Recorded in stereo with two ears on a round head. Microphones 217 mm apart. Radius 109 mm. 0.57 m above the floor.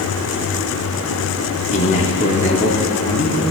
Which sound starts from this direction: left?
A man speaking, at 1.7 s.